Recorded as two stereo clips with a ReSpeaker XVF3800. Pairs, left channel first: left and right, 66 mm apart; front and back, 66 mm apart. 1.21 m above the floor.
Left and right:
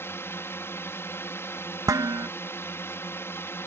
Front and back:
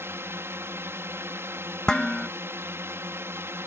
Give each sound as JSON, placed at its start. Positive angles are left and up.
{"t": 0.0, "sound": "a drone", "azimuth_deg": 135}
{"t": 1.9, "sound": "dishes clattering", "azimuth_deg": -80}